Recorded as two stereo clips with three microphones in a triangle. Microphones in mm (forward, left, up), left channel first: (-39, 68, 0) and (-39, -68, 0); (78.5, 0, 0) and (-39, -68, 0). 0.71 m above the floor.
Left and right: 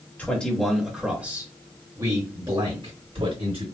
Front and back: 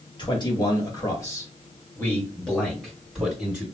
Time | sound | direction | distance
0.2 | a man speaking | 20° left | 1.3 m